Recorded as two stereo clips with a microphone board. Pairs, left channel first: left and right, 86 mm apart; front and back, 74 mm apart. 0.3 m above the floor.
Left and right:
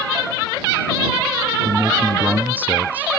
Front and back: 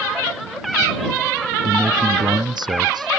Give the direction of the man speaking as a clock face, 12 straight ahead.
5 o'clock.